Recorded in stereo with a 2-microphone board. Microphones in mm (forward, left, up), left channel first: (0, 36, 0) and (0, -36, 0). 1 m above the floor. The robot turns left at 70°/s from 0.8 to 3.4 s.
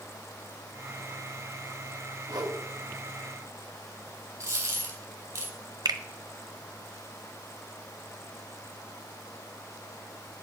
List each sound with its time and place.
2.3 s a whoosh: 60° right (ahead or behind), 1.5 m; by 2.6 s 65° right (ahead or behind), 1.5 m
4.4 s a dropped coin: 35° right (ahead or behind), 3 m
5.8 s a finger snap: 60° right (ahead or behind), 1.0 m